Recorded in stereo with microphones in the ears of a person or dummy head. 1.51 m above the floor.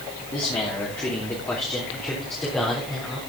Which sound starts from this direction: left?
A man speaking, at 0.3 s.